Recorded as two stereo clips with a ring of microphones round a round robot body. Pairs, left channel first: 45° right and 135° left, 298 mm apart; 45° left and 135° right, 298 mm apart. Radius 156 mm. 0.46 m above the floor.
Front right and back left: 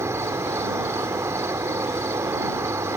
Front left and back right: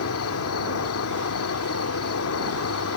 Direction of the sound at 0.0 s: 55° left.